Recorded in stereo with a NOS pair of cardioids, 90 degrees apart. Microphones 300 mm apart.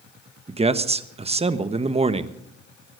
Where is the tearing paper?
No tearing paper in this recording.